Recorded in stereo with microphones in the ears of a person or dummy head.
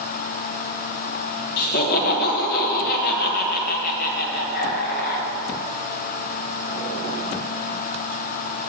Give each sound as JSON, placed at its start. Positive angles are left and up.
{"t": 1.6, "sound": "laughter", "side_deg": 50, "distance_m": 1.7}